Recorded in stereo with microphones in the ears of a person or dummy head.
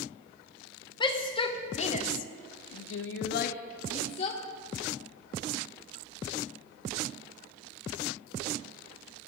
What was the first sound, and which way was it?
A shout, 25° left (ahead or behind).